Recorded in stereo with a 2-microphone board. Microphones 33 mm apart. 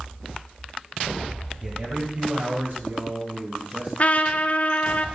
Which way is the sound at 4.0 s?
45° left (ahead or behind).